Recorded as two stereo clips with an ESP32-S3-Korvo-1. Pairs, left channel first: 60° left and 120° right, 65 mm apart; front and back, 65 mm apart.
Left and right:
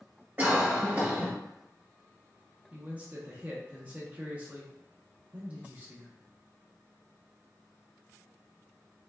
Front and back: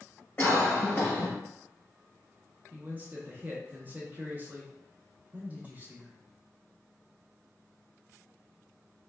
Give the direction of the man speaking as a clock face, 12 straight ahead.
5 o'clock.